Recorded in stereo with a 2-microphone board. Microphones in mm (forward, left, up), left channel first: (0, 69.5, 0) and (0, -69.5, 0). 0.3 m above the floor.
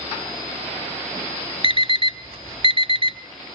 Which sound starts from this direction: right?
An alarm clock, at 1.6 s.